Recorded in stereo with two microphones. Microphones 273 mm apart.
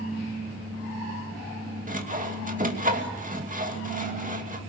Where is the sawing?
30° right (ahead or behind), 2.5 m.